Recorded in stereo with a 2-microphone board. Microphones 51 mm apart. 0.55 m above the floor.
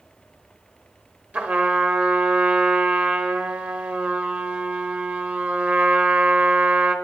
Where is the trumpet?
30° right (ahead or behind), 1.1 m.